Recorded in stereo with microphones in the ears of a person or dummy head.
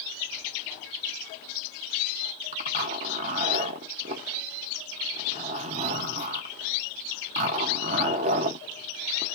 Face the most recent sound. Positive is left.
turn(degrees=-30)  # may be behind; listen again after turning